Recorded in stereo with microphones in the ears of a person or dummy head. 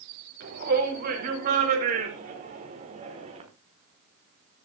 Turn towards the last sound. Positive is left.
turn(degrees=-40)  # may be behind; listen again after turning